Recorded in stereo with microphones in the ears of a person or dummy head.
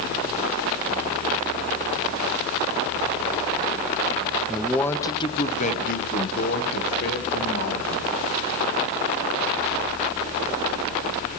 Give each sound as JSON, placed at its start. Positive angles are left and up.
{"t": 4.5, "sound": "a man speaking", "side_deg": -5, "distance_m": 0.8}